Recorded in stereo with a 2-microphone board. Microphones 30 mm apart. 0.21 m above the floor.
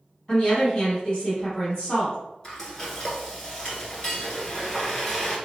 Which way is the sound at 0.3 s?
30° left (ahead or behind).